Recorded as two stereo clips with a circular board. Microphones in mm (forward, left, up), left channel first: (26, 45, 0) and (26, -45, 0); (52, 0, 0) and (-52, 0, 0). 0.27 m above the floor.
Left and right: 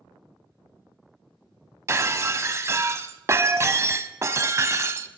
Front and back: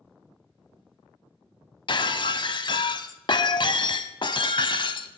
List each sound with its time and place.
1.9 s breaking glass: 30° right, 0.5 m